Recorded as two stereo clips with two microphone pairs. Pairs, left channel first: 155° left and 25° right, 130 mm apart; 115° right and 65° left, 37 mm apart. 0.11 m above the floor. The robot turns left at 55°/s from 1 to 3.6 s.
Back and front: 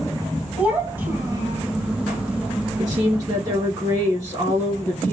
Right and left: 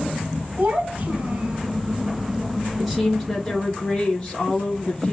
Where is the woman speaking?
20° right, 1.3 m; by 5.1 s 65° right, 1.3 m.